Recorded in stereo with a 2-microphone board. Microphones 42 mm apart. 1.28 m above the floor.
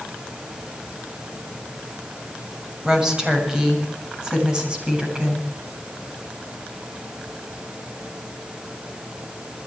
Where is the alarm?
No alarm in this recording.